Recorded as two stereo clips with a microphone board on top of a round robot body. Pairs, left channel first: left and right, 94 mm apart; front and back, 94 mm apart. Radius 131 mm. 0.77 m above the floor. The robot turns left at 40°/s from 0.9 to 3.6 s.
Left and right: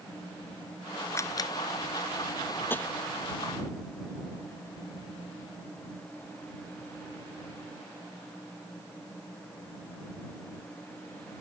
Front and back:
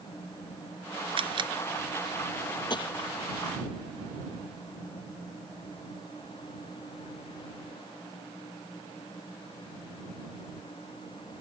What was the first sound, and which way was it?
A camera shutter, 155° left.